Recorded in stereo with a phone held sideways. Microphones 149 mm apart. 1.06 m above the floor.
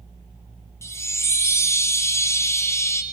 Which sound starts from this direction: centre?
A chime, at 0.8 s.